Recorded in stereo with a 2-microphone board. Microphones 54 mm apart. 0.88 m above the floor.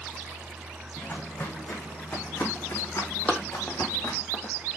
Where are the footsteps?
50° left (ahead or behind), 3 m; by 4.2 s 80° left, 4 m.